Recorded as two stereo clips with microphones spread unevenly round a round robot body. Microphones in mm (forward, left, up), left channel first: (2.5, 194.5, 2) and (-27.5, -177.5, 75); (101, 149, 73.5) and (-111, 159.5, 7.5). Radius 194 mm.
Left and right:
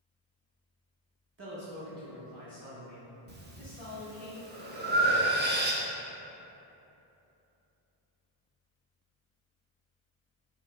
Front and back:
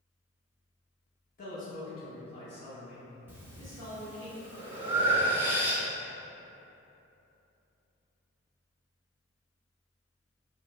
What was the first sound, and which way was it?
A man speaking, 45° right.